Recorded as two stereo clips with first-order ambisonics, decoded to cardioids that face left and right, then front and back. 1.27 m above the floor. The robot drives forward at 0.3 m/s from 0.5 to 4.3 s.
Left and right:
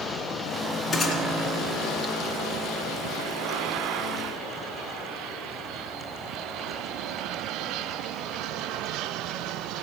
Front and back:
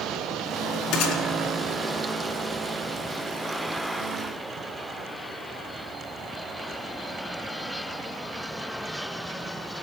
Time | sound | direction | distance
0.9 | a gunshot | 5° left | 3 m